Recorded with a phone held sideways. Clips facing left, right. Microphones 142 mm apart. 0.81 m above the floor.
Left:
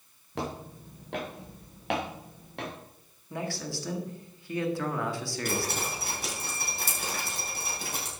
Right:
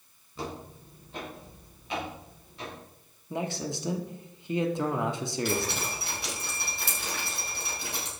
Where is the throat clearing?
No throat clearing in this recording.